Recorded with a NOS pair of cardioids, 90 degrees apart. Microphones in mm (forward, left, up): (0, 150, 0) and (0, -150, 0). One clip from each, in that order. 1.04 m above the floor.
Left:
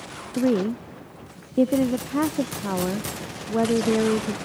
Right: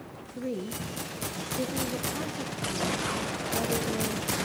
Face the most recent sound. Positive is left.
turn(degrees=70)